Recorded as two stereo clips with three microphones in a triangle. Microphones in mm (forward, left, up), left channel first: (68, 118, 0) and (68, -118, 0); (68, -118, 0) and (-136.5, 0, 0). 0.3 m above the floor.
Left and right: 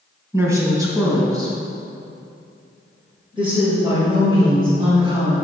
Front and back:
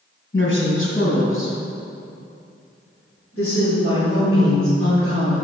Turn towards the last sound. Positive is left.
turn(degrees=-25)